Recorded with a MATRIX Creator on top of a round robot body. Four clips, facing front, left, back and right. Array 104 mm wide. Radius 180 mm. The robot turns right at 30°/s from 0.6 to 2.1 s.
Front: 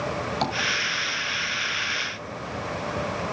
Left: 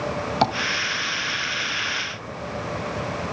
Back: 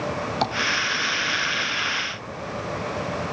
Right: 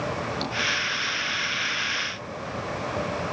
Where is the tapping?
100° left, 2 m.